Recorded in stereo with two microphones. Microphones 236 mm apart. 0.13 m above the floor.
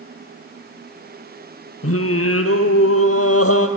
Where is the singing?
75° left (ahead or behind), 1.4 m.